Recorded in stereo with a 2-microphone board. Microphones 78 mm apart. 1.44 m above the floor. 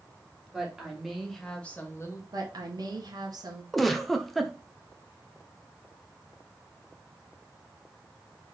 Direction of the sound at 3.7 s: Centre (ahead or behind).